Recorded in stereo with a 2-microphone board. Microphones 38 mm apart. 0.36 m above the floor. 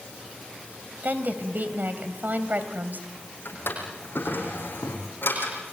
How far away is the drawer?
About 6 m.